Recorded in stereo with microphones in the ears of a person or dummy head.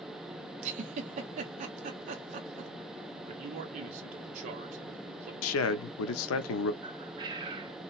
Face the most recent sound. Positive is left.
turn(degrees=-20)  # may be behind; listen again after turning